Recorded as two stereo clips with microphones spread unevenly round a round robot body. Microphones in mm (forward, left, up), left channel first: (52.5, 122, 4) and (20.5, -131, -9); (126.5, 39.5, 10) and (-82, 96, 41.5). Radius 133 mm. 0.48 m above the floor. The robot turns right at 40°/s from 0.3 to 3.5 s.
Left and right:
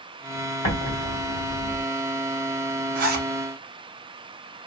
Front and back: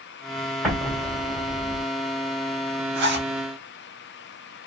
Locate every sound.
0.6 s an explosion: 65° left, 1.9 m; by 1.8 s 110° left, 1.9 m
3.0 s a zipper: 160° right, 0.7 m; by 3.3 s 145° right, 0.7 m